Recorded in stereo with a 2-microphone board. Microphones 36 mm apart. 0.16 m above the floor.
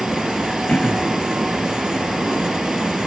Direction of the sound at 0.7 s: 35° left (ahead or behind).